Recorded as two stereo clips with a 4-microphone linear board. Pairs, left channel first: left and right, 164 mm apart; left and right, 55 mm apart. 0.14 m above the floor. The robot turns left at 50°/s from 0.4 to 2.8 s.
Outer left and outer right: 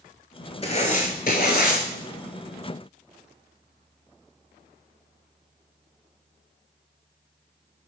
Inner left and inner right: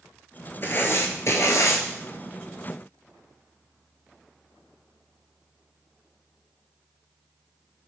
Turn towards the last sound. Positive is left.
turn(degrees=30)